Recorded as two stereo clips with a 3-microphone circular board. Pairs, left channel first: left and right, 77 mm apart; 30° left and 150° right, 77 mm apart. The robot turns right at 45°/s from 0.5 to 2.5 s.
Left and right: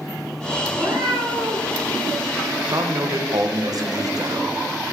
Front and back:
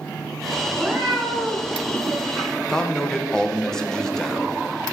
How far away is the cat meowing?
About 3 m.